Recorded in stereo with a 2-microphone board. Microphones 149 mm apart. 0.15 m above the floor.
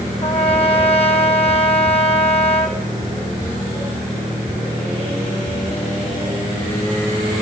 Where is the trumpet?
45° left (ahead or behind), 4 m.